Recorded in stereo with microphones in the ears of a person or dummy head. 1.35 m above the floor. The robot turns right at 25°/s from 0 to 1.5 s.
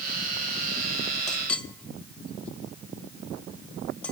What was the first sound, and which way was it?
A clink, 5° left (ahead or behind).